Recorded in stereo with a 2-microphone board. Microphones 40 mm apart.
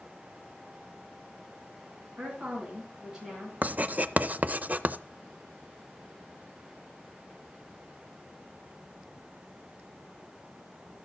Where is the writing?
40° right (ahead or behind), 0.6 m.